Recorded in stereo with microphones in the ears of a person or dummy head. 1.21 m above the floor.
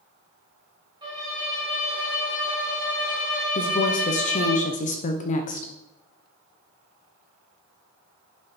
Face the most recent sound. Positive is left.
turn(degrees=40)  # may be behind; listen again after turning